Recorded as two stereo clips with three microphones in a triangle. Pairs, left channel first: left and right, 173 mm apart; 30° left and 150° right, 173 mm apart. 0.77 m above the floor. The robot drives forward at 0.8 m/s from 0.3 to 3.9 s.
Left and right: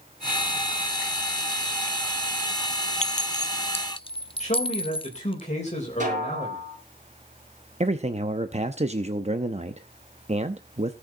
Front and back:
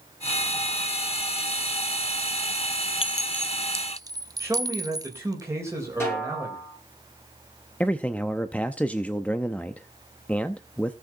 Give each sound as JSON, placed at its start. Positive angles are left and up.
{"t": 3.0, "sound": "a clink", "azimuth_deg": 70, "distance_m": 0.6}
{"t": 4.4, "sound": "a man speaking", "azimuth_deg": 140, "distance_m": 3.5}
{"t": 6.0, "sound": "a snare drum", "azimuth_deg": -45, "distance_m": 6.0}
{"t": 7.8, "sound": "a man speaking", "azimuth_deg": -50, "distance_m": 0.7}